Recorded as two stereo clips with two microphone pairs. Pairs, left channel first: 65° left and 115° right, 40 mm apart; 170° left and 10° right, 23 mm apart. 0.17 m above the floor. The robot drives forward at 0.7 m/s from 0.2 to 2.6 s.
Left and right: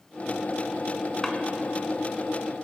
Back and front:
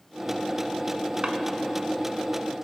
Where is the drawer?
10° right, 0.9 m; by 1.3 s 15° right, 0.9 m.